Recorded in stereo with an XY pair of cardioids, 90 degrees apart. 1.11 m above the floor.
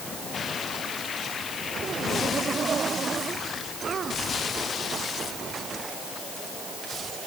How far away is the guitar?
I don't hear a guitar.